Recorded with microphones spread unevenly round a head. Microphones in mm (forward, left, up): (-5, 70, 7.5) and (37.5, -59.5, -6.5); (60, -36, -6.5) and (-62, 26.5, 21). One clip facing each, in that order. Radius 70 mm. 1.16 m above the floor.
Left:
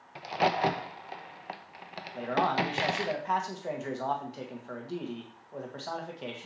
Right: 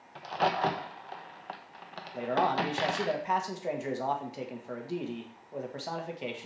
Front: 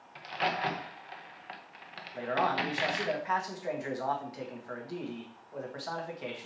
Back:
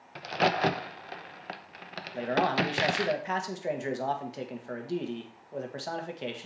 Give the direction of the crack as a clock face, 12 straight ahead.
6 o'clock.